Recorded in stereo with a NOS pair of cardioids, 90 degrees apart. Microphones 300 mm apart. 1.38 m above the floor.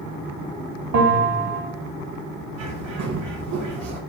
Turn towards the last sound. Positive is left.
turn(degrees=-60)